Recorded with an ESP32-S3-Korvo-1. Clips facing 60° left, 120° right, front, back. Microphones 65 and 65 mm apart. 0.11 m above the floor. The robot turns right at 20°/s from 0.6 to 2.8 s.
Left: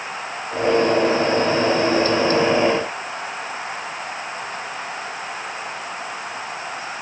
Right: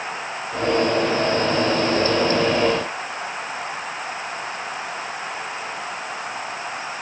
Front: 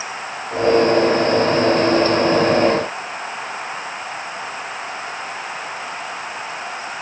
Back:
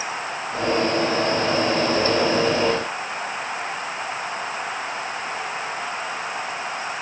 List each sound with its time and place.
Only background noise.